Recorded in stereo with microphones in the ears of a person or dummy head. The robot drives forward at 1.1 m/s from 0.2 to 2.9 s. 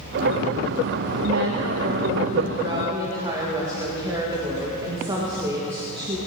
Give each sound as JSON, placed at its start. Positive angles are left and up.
{"t": 1.2, "sound": "a woman speaking", "side_deg": -75, "distance_m": 0.9}